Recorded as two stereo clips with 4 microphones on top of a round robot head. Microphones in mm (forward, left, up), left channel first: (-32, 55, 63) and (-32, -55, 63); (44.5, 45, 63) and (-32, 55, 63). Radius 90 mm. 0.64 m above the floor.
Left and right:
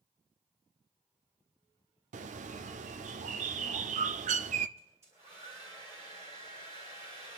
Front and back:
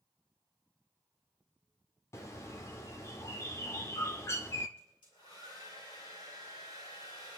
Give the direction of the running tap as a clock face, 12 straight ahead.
I don't hear a running tap.